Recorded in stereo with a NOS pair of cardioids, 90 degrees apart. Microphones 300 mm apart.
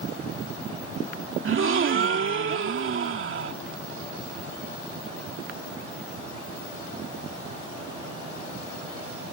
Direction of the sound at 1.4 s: 45° right.